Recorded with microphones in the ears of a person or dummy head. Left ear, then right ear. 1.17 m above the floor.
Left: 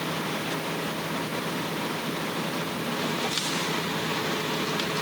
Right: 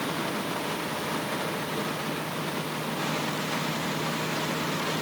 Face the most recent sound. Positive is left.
No sound to turn to.